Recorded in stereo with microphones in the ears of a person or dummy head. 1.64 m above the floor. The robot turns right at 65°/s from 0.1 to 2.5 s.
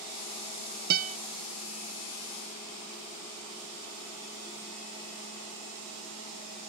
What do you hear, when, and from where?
0.9 s a guitar: 55° right (ahead or behind); by 1.2 s 40° right (ahead or behind)